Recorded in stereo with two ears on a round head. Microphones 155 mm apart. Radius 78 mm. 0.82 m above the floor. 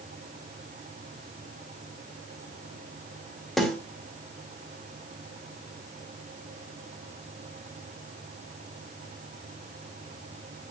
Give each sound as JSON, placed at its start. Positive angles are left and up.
{"t": 3.6, "sound": "a snare drum", "side_deg": 0, "distance_m": 2.5}